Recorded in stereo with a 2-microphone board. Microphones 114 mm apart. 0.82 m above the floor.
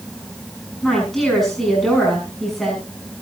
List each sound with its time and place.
0.8 s a woman speaking: centre (ahead or behind), 6 m